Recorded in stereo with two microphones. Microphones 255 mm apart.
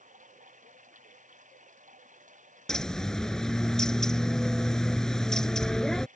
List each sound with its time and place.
0.0 s running water: 30° right (ahead or behind)
2.7 s a bird: centre (ahead or behind)